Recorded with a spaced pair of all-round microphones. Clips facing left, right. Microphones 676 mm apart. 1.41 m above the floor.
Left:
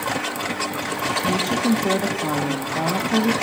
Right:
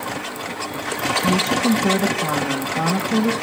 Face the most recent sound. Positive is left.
turn(degrees=-40)  # may be behind; listen again after turning